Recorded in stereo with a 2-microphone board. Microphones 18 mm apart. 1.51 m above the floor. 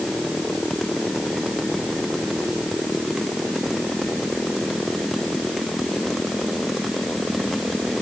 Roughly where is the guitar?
No guitar in this recording.